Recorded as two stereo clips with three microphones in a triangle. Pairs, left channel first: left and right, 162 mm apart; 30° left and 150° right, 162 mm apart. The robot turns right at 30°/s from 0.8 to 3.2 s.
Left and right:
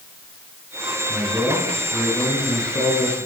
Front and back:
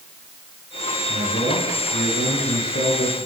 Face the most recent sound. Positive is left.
turn(degrees=50)